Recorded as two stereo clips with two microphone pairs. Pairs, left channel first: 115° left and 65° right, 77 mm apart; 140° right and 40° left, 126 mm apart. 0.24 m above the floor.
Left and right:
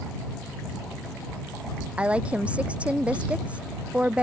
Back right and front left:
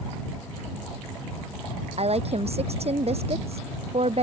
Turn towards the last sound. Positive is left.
turn(degrees=10)